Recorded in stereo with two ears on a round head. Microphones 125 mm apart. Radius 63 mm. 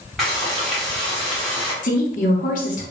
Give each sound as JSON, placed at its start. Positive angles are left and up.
{"t": 0.2, "sound": "frying", "side_deg": 0, "distance_m": 1.7}
{"t": 1.8, "sound": "a woman speaking", "side_deg": 60, "distance_m": 1.0}